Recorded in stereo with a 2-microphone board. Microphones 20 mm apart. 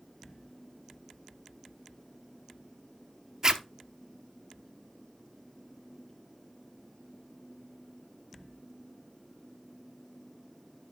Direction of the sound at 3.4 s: 30° right (ahead or behind).